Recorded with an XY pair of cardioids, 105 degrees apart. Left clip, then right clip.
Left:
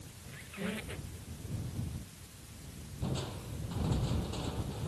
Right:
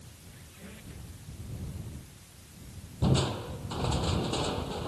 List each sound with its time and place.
0.3 s a squeak: 65° left
3.0 s crushing: 65° right